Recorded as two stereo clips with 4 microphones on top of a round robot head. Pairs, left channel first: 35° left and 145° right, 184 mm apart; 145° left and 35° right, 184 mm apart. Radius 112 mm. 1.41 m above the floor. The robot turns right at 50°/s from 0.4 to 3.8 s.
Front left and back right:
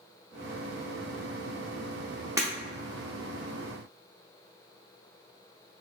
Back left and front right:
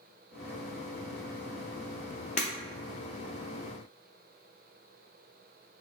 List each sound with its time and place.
2.4 s breaking glass: 150° left, 0.6 m; by 2.5 s 160° left, 0.6 m